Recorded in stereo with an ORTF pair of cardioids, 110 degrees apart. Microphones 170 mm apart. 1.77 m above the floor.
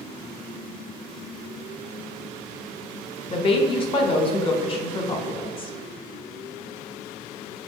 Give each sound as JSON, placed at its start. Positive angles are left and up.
{"t": 3.3, "sound": "a woman speaking", "azimuth_deg": 30, "distance_m": 0.6}